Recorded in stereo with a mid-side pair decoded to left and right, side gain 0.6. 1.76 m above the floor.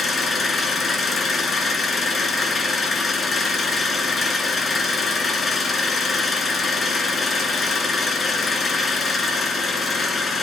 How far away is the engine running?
About 1.5 m.